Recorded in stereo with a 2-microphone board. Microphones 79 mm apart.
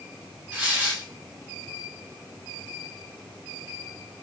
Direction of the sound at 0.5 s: 15° right (ahead or behind).